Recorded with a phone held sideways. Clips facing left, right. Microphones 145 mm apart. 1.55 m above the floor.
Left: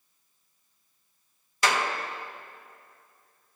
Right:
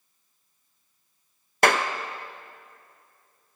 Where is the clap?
60° right (ahead or behind), 0.5 m.